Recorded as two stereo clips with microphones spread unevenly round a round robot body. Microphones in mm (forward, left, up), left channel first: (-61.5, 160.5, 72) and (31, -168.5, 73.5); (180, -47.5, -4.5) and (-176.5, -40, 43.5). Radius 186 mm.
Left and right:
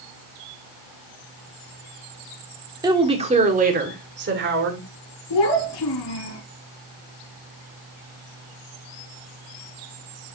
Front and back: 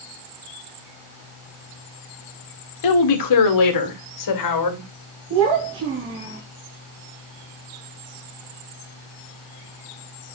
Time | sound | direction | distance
2.8 | a woman speaking | 5° left | 1.8 m
5.3 | a child speaking | 120° left | 4 m